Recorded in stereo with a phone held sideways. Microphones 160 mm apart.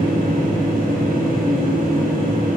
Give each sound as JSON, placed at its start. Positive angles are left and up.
{"t": 0.0, "sound": "a machine running", "side_deg": -70, "distance_m": 3.0}